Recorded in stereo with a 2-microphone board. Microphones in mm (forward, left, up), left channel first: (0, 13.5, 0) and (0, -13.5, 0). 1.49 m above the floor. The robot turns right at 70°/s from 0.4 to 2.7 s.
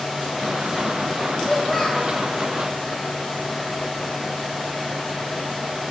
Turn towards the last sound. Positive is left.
turn(degrees=60)